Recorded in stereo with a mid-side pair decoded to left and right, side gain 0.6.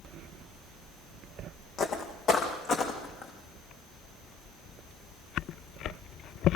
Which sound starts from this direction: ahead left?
Footsteps, at 1.8 s.